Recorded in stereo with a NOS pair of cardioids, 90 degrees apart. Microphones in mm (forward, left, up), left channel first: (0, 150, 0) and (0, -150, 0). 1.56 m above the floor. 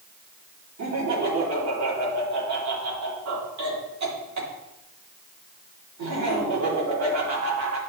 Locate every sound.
0.8 s laughter: 60° right, 3 m